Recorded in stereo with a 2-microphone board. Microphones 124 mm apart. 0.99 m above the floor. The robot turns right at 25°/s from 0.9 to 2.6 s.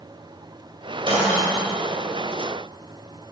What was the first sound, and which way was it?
Breaking glass, 45° right (ahead or behind).